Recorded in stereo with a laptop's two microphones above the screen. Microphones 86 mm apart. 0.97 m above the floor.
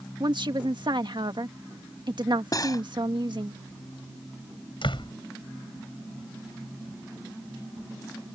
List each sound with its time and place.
0.2 s a woman speaking: 60° right (ahead or behind)
2.5 s cutlery clinking: 45° left (ahead or behind)
4.8 s a door slam: 70° left (ahead or behind)